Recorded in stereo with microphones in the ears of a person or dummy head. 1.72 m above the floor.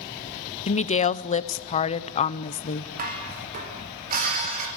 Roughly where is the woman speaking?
Left.